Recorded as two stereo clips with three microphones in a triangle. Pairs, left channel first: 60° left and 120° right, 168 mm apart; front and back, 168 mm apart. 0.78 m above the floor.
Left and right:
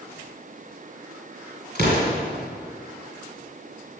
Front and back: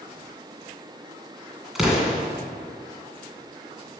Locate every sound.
1.8 s an explosion: 90° right, 2 m